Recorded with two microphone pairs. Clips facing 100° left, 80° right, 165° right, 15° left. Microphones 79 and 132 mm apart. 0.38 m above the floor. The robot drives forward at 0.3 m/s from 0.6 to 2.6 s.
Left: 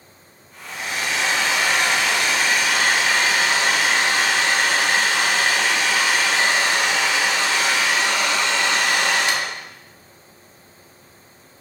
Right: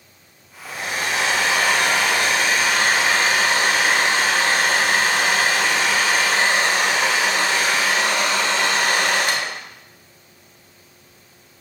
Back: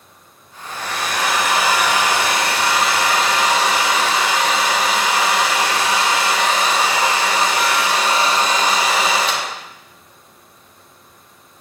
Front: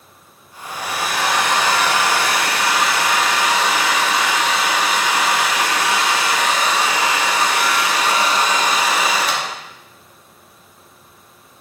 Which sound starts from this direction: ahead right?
A hair dryer, at 0.7 s.